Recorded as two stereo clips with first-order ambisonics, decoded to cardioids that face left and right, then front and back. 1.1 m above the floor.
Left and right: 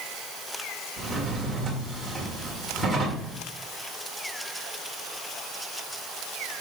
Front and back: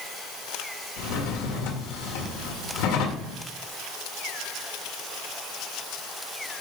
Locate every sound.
1.0 s a drawer: 5° right, 1.7 m